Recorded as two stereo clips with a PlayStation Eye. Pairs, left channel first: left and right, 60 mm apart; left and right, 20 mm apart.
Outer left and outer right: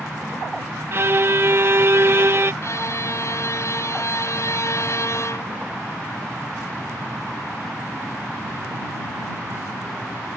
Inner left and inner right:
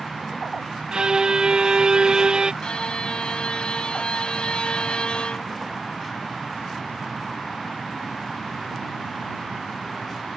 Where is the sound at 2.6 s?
55° left (ahead or behind).